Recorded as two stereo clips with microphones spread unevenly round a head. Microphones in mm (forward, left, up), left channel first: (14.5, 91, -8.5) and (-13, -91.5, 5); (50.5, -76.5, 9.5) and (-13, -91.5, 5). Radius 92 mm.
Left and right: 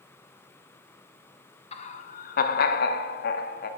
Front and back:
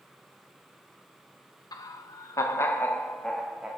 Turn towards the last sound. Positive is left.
turn(degrees=115)